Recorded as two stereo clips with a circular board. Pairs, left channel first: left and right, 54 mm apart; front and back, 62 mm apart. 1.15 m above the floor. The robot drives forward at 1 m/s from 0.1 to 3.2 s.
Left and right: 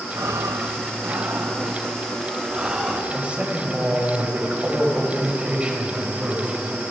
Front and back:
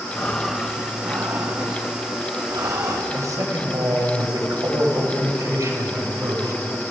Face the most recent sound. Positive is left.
turn(degrees=-155)